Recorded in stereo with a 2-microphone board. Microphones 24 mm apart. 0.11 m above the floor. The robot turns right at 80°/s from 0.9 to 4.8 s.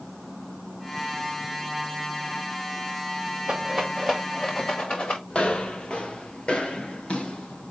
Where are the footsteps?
50° left (ahead or behind), 5.5 m; by 7.7 s 60° left (ahead or behind), 7 m.